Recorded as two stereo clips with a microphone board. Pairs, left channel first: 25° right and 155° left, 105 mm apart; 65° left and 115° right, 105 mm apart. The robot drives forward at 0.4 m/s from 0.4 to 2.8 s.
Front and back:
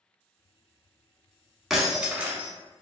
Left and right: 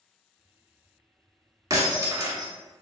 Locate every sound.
1.7 s breaking glass: 115° right, 0.9 m; by 2.5 s 140° right, 1.0 m